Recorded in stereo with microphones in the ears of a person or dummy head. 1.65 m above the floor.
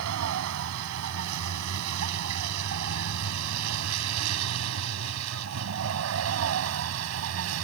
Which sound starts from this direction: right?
A vehicle, at 0.0 s.